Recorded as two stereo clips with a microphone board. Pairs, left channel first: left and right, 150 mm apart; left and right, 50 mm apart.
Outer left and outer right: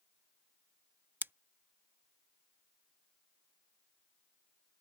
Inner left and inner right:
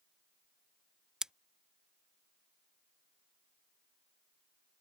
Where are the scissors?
15° right (ahead or behind).